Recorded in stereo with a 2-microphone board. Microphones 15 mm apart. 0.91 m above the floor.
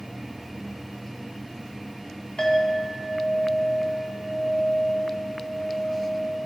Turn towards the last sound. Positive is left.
turn(degrees=80)